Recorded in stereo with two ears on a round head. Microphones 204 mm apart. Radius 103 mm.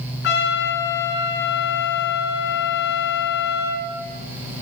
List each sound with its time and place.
0.2 s a trumpet: 50° left (ahead or behind), 3.5 m